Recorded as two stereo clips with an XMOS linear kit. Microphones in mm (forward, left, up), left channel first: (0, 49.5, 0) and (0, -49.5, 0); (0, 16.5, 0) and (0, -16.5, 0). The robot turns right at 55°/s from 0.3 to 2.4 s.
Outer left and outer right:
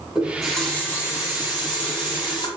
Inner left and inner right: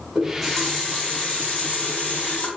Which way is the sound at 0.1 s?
10° right.